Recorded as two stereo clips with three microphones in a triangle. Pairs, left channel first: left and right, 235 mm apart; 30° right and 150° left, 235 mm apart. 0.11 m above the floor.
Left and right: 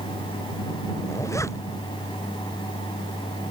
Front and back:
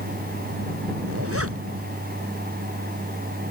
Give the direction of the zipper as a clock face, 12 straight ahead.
6 o'clock.